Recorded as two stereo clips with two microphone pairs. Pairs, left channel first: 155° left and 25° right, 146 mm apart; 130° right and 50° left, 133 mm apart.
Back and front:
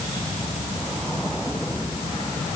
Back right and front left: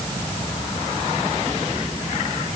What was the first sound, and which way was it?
Only background noise.